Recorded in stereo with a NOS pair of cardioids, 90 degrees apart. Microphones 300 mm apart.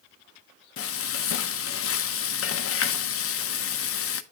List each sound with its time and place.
0.8 s frying: 50° left, 0.7 m